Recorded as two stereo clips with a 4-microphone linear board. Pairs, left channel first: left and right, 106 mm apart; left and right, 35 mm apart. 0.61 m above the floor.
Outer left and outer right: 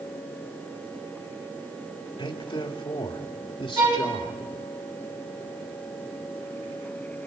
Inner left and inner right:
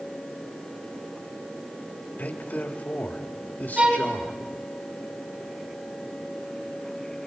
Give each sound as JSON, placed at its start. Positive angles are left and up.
{"t": 2.2, "sound": "a man speaking", "side_deg": 55, "distance_m": 2.0}
{"t": 3.8, "sound": "a violin", "side_deg": -35, "distance_m": 3.5}